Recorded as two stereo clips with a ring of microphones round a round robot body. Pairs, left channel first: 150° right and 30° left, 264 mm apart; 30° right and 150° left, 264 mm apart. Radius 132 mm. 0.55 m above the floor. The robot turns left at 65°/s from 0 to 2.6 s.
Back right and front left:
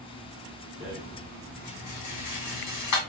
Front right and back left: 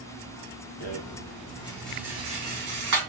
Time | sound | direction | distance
0.8 | a rattle | 45° right | 1.2 m